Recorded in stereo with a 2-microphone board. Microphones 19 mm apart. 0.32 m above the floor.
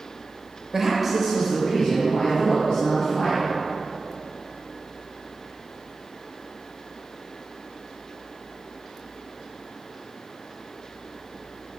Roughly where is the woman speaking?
Right.